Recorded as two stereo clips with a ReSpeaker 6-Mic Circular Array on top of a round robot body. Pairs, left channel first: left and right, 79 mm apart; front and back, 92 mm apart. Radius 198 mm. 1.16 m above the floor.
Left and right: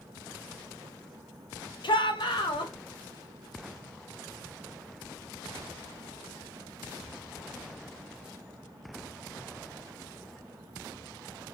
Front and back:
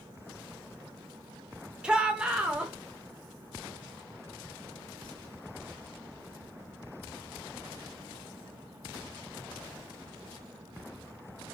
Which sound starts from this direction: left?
A shout, at 1.8 s.